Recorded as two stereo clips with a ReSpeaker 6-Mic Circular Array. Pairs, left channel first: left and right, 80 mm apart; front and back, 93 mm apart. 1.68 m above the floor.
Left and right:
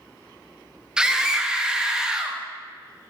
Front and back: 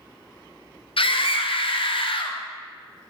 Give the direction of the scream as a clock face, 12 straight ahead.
12 o'clock.